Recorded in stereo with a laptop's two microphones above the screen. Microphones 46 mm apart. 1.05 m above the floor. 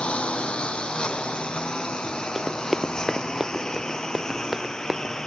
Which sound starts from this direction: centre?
Running footsteps, at 2.4 s.